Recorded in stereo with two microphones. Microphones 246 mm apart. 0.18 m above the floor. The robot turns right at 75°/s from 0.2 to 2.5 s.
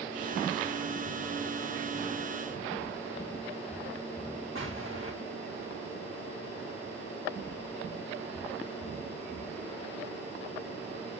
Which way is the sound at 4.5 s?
60° right (ahead or behind).